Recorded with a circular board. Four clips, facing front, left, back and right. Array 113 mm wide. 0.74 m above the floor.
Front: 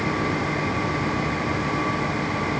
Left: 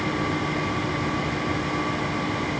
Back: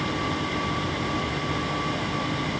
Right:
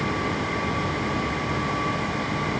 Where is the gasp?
No gasp in this recording.